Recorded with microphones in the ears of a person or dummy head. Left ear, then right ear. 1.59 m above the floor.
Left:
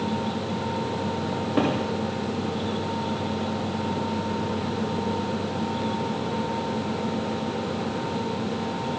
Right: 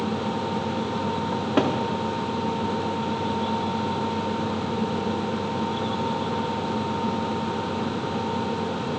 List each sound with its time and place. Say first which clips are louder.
1.3 s a cupboard door: right 1 dB; 25° right (ahead or behind), 0.7 m